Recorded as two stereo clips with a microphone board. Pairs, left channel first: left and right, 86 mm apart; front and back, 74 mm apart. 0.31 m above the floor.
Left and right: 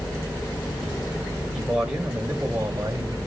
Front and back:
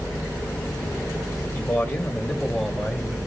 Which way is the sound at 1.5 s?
5° left.